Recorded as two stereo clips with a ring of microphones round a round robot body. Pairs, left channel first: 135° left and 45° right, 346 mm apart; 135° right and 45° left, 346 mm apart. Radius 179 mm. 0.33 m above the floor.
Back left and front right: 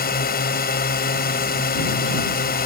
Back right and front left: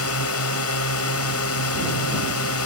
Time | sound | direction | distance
0.0 | a drone | 170° right | ?